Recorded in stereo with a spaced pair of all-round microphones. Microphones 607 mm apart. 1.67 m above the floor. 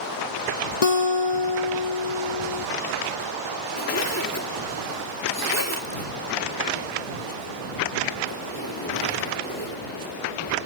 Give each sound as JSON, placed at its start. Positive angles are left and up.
{"t": 0.8, "sound": "a guitar", "side_deg": 65}
{"t": 3.8, "sound": "a zipper", "side_deg": 25}